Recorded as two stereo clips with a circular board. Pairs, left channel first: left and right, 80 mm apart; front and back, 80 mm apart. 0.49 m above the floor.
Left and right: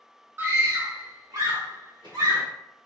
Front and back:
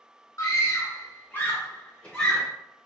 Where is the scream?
35° right, 1.3 m; by 2.5 s 80° right, 2 m.